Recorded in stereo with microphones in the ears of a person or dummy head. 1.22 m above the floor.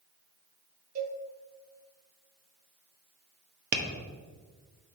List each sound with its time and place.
0.9 s a cowbell: 40° right (ahead or behind), 1.4 m
3.7 s tapping: 50° right (ahead or behind), 0.9 m